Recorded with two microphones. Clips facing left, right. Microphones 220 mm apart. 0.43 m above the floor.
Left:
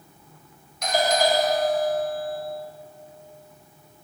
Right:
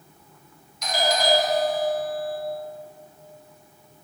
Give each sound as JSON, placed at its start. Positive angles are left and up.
{"t": 0.8, "sound": "a doorbell", "side_deg": 60, "distance_m": 3.5}